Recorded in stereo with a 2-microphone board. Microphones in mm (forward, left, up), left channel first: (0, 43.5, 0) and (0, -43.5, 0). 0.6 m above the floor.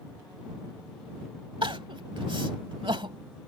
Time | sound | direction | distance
1.6 | crying | 75° right (ahead or behind) | ?